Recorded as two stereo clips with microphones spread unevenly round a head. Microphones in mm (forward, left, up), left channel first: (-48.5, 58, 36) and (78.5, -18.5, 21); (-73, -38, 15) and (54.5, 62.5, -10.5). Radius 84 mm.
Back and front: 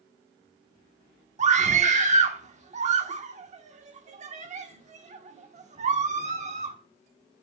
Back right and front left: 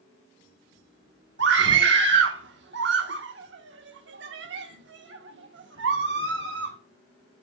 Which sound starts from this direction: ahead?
A scream, at 1.4 s.